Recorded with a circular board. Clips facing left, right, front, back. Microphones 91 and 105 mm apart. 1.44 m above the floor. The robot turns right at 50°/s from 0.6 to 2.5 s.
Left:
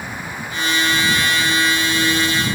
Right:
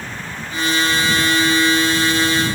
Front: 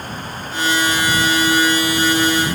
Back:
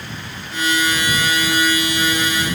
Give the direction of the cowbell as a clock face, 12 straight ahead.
No cowbell in this recording.